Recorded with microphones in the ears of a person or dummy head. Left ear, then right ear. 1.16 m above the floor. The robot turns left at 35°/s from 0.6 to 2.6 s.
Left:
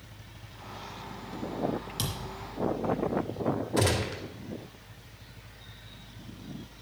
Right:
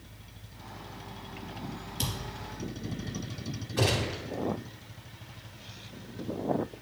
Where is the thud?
65° left (ahead or behind), 3 m; by 2.4 s 50° left (ahead or behind), 3 m.